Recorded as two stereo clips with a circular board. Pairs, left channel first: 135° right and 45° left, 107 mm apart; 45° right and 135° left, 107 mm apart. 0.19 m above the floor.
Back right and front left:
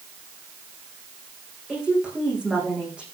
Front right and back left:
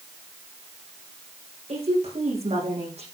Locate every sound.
1.7 s a woman speaking: 125° left, 9 m